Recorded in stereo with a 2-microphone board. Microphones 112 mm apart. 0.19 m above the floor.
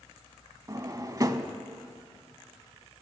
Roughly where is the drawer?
Right.